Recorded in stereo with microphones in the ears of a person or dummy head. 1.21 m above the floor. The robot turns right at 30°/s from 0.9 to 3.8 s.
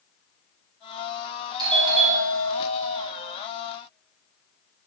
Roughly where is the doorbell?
Behind right.